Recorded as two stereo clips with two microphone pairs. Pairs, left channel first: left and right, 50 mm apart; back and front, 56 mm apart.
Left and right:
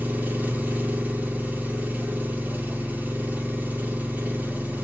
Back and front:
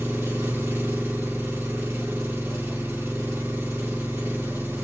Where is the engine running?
40° right, 1.9 m.